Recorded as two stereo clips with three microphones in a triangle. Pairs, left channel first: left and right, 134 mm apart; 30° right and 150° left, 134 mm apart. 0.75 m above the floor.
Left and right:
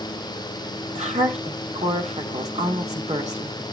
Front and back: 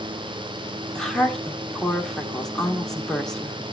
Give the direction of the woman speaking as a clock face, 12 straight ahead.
4 o'clock.